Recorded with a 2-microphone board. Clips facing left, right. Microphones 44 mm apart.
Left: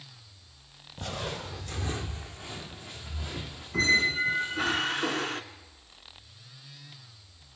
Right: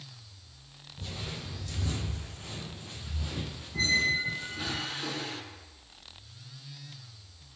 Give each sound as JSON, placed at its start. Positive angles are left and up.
{"t": 1.0, "sound": "footsteps", "side_deg": 65, "distance_m": 0.8}
{"t": 3.7, "sound": "a squeak", "side_deg": 55, "distance_m": 0.6}